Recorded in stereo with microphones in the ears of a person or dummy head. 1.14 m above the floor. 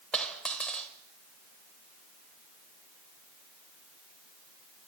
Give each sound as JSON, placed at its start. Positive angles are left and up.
{"t": 0.1, "sound": "a dropped coin", "side_deg": 5, "distance_m": 1.5}